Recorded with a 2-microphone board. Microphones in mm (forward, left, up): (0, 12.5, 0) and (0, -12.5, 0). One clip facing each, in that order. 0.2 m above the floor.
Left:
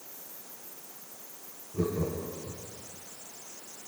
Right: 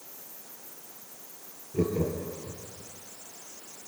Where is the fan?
No fan in this recording.